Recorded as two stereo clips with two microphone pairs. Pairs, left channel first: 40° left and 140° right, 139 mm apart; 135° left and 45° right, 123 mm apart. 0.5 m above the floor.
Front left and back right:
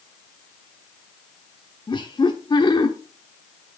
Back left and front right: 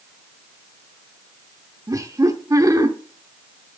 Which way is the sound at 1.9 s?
5° left.